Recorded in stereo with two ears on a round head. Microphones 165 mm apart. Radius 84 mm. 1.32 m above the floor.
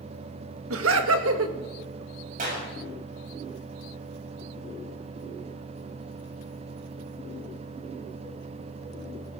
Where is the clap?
45° right (ahead or behind), 6.5 m.